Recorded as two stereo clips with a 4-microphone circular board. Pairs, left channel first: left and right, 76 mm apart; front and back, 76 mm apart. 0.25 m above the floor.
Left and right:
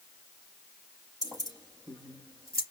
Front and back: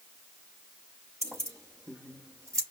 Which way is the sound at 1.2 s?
125° right.